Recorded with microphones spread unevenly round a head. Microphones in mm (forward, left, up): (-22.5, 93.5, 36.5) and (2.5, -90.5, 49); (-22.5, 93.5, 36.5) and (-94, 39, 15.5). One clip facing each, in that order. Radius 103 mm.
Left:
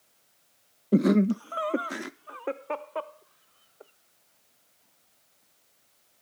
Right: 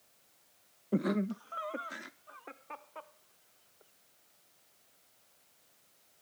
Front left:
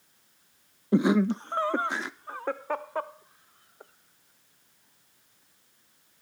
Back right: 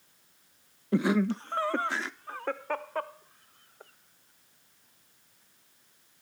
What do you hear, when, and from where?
0.9 s laughter: 115° left